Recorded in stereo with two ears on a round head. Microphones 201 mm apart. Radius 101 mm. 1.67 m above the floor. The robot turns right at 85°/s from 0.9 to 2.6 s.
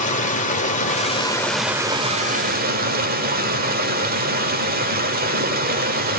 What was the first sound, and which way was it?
Running water, 120° left.